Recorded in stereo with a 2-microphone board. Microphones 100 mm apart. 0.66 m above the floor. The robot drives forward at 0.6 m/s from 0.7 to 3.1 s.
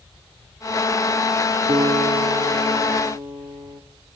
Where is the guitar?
75° right (ahead or behind), 0.9 m; by 3.8 s 40° right (ahead or behind), 1.3 m.